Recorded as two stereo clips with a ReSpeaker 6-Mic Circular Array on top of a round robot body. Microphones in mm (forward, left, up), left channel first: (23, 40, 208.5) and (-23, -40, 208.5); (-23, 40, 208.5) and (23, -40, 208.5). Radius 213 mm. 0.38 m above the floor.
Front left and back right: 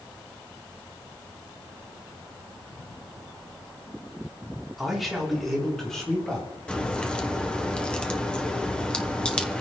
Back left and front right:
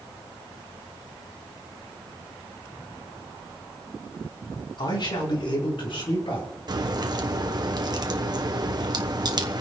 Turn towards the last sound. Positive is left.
turn(degrees=-20)